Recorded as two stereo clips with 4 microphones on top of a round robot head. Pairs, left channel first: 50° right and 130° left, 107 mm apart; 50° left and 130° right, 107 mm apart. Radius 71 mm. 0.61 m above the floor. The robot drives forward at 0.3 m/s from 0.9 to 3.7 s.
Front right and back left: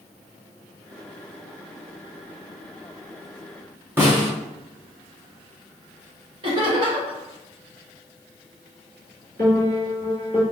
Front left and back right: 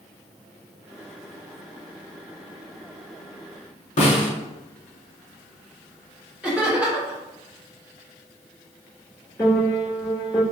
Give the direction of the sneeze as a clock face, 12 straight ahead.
No sneeze in this recording.